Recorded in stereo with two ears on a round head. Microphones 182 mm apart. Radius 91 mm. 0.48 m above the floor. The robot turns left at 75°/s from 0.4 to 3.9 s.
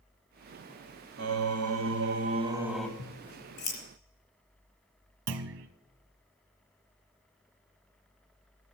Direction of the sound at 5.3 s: 65° right (ahead or behind).